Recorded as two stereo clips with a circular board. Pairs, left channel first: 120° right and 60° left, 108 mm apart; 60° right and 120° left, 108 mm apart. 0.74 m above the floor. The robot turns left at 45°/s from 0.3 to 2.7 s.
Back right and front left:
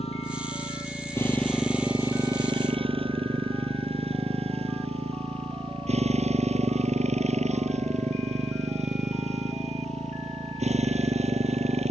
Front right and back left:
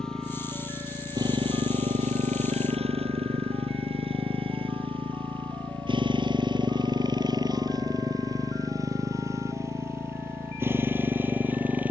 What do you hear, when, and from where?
0.0 s a motorcycle: 145° right; by 11.9 s 45° left